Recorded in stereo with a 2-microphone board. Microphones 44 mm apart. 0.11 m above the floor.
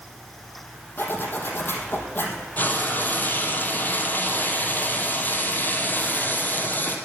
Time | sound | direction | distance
1.0 | a zipper | 50° left (ahead or behind) | 4 m
2.6 | frying | 45° left (ahead or behind) | 2.5 m